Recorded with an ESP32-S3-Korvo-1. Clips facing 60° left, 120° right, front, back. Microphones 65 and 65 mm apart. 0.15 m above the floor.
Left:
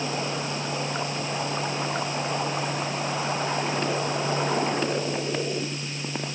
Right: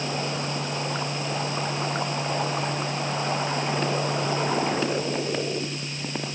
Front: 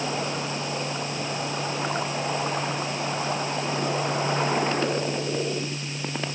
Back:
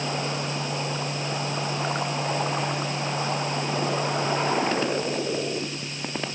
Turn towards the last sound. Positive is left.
No sound to turn to.